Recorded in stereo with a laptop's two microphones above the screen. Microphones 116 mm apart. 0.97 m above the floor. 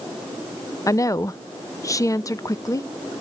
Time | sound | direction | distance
0.9 | a woman speaking | 30° left (ahead or behind) | 0.7 m